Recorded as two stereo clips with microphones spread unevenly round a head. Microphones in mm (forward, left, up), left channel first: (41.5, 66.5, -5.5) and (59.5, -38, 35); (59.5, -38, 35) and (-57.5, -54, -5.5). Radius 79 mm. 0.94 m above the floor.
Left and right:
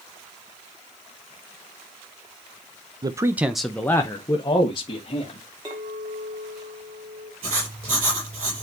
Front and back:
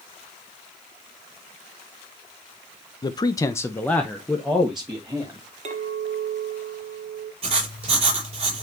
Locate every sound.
3.0 s a man speaking: 35° right, 0.7 m; by 5.4 s 115° left, 1.6 m
5.7 s a clink: 140° right, 1.6 m
7.4 s writing: 130° right, 6.5 m